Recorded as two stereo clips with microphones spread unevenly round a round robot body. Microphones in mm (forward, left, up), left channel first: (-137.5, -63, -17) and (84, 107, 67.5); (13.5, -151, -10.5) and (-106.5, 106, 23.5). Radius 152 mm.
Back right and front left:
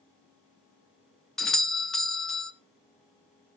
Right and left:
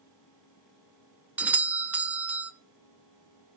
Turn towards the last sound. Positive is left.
turn(degrees=-150)